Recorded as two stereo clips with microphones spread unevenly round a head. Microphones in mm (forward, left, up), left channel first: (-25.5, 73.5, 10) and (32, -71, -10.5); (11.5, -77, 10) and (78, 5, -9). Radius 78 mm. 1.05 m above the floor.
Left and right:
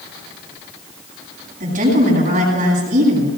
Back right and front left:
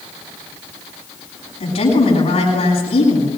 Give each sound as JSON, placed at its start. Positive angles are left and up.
{"t": 1.6, "sound": "a woman speaking", "azimuth_deg": -110, "distance_m": 10.0}